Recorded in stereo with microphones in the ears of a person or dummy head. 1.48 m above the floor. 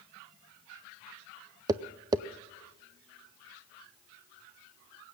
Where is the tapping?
25° right (ahead or behind), 0.5 m.